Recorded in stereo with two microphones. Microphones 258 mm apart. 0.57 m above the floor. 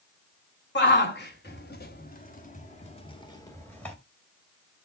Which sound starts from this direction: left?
A shout, at 0.8 s.